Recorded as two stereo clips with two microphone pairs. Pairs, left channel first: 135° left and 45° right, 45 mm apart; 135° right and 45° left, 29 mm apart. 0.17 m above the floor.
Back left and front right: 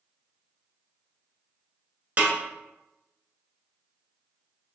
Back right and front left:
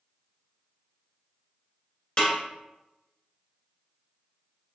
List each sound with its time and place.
2.2 s a snare drum: 90° right, 1.2 m